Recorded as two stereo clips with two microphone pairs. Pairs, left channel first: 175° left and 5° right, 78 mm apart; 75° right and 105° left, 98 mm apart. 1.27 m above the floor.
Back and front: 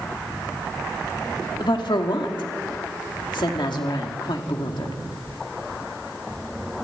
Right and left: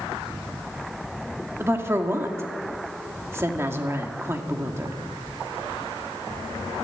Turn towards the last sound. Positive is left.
turn(degrees=165)